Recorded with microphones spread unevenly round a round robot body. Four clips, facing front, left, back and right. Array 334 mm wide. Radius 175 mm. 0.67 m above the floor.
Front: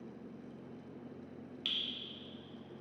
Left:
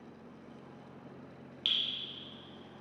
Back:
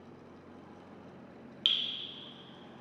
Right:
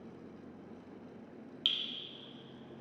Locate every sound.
1.6 s dripping: 150° right, 0.6 m